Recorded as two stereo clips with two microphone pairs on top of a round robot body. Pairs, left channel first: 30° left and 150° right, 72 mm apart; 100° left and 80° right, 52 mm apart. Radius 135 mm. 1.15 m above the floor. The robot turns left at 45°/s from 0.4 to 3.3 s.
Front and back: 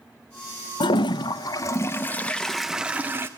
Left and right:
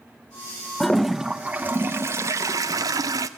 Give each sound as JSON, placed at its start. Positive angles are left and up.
{"t": 0.8, "sound": "a toilet flushing", "azimuth_deg": 20, "distance_m": 0.6}